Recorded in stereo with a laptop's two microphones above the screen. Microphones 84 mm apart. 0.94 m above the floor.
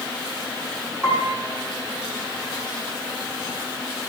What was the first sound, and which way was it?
A piano, 15° right (ahead or behind).